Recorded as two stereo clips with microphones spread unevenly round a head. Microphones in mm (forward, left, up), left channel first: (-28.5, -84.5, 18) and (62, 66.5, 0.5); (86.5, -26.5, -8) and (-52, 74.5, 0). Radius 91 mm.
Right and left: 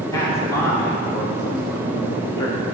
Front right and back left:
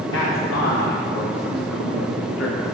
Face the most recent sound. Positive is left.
turn(degrees=-50)